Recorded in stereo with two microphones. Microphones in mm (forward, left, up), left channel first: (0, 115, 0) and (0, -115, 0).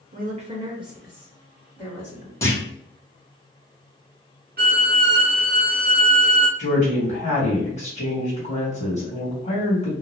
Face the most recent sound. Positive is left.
turn(degrees=30)  # may be behind; listen again after turning